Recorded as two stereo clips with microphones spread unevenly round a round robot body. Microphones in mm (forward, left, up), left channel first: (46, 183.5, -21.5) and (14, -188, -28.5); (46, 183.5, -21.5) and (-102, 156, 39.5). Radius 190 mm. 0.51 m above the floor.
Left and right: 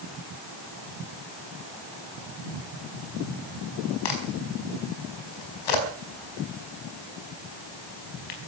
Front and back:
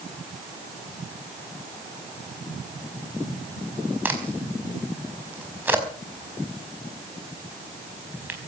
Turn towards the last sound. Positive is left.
turn(degrees=110)